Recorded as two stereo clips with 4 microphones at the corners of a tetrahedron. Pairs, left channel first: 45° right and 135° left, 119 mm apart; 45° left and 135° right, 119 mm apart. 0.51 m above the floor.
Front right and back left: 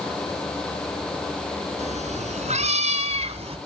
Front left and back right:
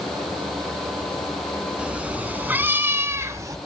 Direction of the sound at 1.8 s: 145° left.